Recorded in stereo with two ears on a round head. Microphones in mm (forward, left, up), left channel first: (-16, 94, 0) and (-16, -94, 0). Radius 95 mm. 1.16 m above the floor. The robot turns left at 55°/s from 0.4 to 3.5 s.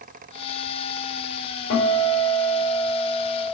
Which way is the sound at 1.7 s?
95° left.